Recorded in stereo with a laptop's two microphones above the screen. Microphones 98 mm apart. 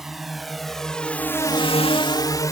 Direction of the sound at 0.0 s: 5° right (ahead or behind).